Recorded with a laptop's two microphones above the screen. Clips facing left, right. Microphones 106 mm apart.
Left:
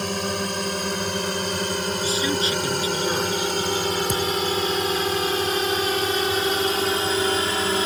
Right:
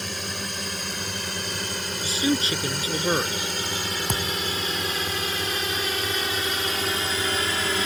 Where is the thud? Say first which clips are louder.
Left 5 dB; 80° right.